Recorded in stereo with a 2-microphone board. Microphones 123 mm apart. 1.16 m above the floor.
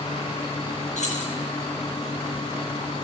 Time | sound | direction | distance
1.0 | keys jangling | 70° left (ahead or behind) | 8.5 m